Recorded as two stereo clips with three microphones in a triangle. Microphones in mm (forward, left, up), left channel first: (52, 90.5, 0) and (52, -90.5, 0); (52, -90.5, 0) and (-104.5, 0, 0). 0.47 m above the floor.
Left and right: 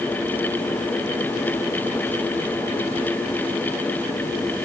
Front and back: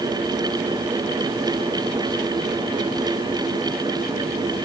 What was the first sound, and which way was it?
Only background noise.